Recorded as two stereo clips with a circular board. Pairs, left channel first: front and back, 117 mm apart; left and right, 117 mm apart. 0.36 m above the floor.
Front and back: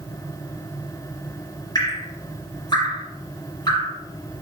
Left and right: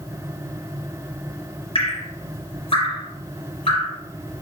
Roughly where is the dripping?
Ahead left.